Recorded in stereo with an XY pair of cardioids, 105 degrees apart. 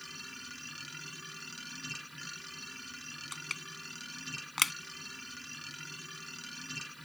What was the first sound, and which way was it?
A machine running, 5° right.